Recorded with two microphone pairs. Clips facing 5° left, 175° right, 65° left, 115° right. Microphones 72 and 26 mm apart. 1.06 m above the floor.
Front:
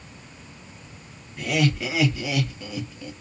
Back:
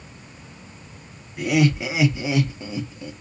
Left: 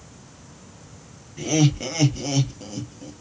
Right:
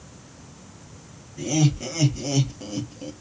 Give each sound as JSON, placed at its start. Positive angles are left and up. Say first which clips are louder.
{"t": 1.4, "sound": "laughter", "louder": "back 4 dB, left 2 dB", "azimuth_deg": 110, "distance_m": 1.2}